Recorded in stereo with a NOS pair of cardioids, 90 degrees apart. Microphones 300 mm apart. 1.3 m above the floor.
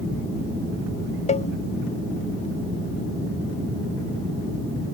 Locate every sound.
1.3 s a cowbell: 20° left